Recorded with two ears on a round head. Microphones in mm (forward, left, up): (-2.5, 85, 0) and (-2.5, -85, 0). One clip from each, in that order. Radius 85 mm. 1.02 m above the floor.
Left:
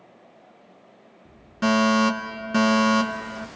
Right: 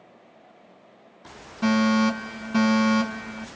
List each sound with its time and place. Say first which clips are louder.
1.6 s a fire alarm: left 3 dB; 20° left (ahead or behind), 1.8 m